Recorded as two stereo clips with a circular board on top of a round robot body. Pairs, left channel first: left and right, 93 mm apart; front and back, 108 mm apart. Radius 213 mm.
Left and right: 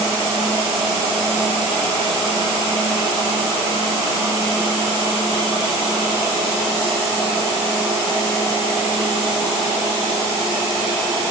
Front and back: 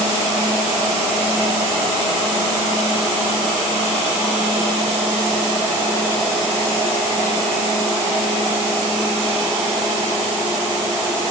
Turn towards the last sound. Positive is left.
No sound to turn to.